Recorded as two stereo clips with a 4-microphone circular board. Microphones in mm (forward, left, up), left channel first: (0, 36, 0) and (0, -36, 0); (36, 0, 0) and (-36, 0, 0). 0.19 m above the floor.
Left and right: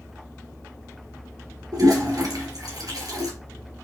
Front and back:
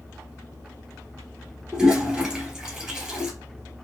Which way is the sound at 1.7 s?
105° right.